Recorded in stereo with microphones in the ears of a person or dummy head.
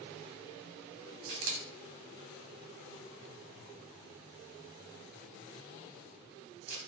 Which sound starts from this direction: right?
A camera shutter, at 1.3 s.